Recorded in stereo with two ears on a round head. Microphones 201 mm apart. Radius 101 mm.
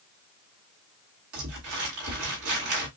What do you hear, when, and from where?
1.3 s crumpling: 75° right (ahead or behind), 2.0 m